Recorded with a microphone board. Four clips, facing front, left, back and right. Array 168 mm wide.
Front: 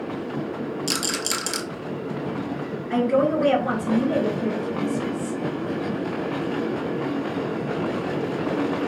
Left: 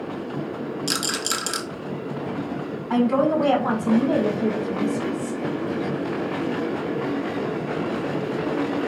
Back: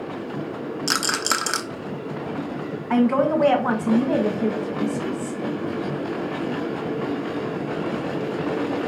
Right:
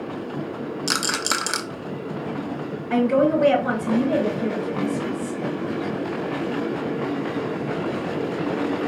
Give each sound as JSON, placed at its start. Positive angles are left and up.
{"t": 0.9, "sound": "a rattle", "azimuth_deg": -140, "distance_m": 0.6}
{"t": 2.9, "sound": "a woman speaking", "azimuth_deg": 145, "distance_m": 1.9}